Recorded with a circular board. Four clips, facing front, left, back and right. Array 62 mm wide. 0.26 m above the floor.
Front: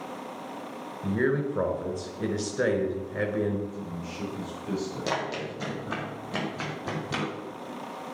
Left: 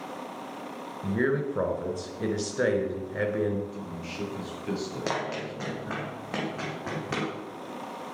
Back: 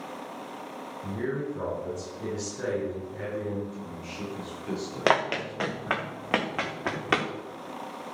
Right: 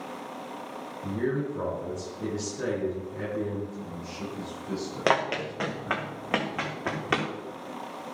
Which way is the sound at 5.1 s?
150° right.